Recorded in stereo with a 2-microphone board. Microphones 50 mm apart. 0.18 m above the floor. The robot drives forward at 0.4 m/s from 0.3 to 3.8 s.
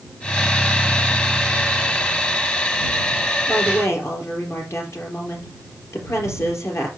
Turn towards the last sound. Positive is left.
turn(degrees=65)  # may be behind; listen again after turning